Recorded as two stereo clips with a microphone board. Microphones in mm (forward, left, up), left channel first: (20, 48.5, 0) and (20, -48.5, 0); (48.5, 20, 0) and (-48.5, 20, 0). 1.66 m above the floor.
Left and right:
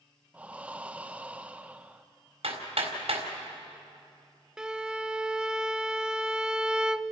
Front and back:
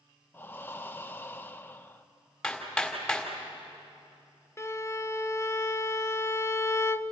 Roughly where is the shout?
No shout in this recording.